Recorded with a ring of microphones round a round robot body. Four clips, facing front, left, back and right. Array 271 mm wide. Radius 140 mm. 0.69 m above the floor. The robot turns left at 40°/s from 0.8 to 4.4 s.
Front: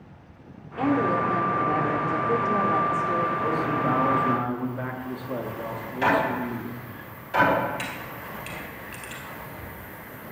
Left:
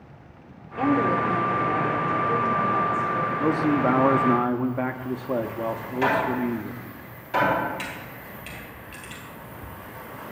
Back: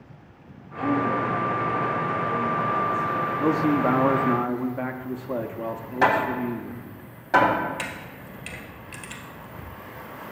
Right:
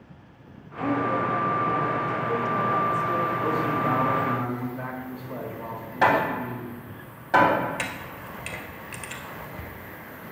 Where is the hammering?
140° right, 4 m.